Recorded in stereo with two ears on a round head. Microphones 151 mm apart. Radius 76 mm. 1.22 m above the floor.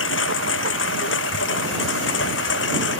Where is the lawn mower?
85° left.